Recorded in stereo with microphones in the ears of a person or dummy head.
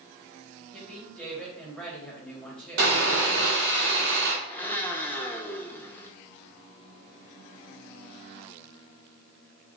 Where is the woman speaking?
5° left (ahead or behind), 2 m.